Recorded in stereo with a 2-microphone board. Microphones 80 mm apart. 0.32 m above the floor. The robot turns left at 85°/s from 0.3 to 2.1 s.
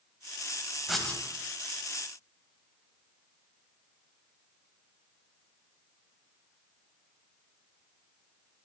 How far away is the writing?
About 0.6 m.